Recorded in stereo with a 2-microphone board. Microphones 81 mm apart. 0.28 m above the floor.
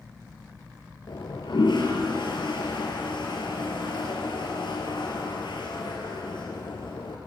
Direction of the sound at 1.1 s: 70° left (ahead or behind).